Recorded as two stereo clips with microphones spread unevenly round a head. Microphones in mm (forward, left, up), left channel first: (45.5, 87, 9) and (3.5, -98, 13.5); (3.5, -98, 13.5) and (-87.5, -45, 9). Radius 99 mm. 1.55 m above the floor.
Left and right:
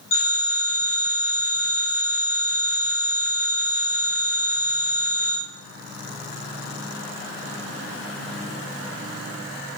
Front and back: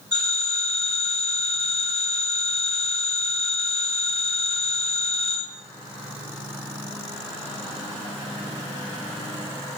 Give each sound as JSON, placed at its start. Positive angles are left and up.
{"t": 0.1, "sound": "a phone ringing", "azimuth_deg": 40, "distance_m": 1.3}